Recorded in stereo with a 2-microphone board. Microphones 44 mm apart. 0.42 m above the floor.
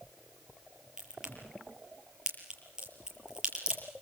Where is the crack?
20° right (ahead or behind), 7 m.